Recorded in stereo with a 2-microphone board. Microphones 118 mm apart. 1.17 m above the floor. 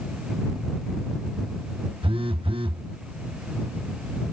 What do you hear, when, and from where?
2.0 s a phone buzzing: 50° right (ahead or behind)